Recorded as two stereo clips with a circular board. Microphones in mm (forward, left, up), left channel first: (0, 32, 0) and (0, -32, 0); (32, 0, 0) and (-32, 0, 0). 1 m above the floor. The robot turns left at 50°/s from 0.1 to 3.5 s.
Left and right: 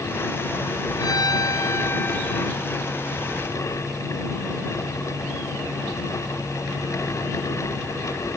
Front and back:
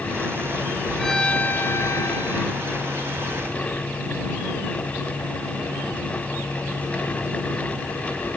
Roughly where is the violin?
Left.